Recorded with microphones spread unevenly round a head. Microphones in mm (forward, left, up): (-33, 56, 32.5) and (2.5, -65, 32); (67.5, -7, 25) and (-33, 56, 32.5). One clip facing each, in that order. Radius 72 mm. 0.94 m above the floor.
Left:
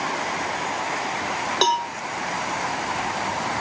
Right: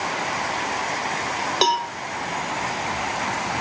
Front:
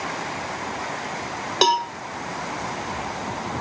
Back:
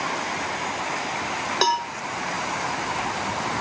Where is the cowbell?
10° left, 0.8 m.